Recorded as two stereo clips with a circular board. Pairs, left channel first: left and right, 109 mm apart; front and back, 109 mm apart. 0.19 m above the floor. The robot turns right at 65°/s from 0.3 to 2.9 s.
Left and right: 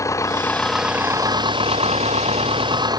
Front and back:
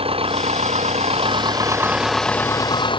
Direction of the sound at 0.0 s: 150° left.